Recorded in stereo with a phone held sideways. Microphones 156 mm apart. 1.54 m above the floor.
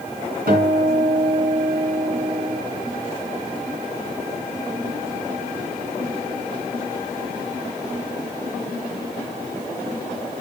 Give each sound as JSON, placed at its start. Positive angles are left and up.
{"t": 0.5, "sound": "a guitar", "side_deg": -75, "distance_m": 3.0}